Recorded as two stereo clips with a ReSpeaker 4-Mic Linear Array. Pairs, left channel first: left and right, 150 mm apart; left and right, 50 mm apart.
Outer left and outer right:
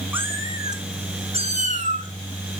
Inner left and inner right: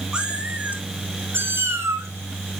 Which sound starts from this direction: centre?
A cat meowing, at 0.1 s.